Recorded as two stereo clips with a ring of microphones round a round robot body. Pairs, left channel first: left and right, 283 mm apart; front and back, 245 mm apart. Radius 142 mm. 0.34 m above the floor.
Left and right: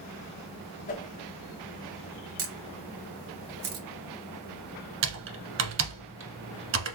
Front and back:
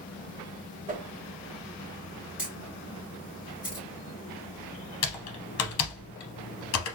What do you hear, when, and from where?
0.9 s a whoosh: 140° left, 0.8 m
2.4 s a camera shutter: 95° right, 1.1 m
5.0 s typing on a keyboard: 40° right, 0.8 m